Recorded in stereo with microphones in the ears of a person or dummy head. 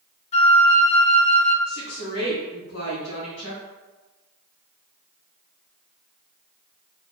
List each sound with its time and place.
0.3 s a flute: 40° left (ahead or behind), 0.6 m
1.7 s a woman speaking: 75° left (ahead or behind), 1.8 m